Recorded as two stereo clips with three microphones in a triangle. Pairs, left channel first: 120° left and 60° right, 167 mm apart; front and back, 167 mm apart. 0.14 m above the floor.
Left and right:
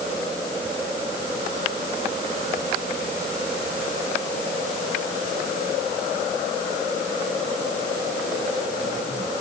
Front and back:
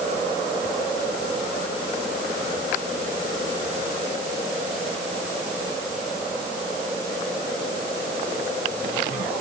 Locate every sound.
Only background noise.